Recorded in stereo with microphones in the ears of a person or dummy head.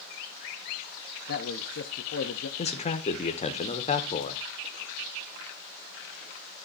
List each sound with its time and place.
1.3 s a man speaking: 60° left (ahead or behind), 0.8 m
2.6 s a man speaking: 30° left (ahead or behind), 1.0 m